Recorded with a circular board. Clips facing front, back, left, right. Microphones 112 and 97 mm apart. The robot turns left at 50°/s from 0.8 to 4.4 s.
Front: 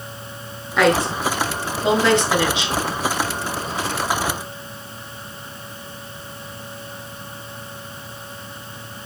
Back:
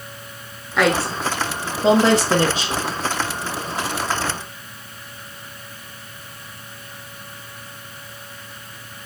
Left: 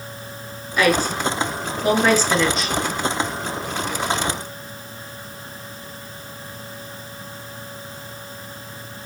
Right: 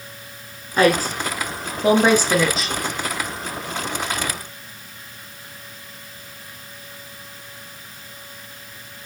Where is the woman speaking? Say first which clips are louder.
Front 2 dB, right 1 dB; 90° right, 1.4 m; by 2.8 s 175° left, 1.4 m.